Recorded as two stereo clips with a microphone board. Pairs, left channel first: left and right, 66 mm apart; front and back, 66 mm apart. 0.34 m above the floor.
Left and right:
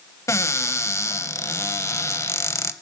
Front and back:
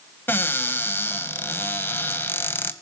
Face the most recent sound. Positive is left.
turn(degrees=55)